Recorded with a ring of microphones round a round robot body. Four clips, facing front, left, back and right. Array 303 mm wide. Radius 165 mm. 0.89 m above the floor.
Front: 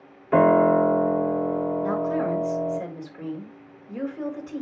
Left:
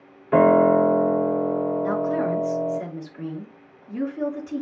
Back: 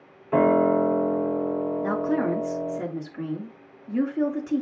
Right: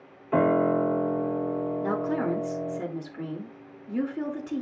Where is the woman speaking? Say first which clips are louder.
Left 4 dB, even; 155° right, 2 m.